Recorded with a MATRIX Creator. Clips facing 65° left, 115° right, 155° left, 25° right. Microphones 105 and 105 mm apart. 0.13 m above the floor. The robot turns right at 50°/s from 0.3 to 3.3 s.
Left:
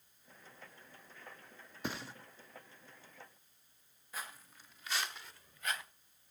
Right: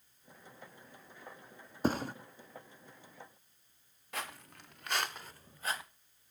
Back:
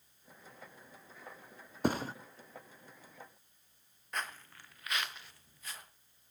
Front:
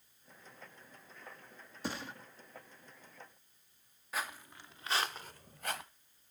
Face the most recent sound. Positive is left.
turn(degrees=-50)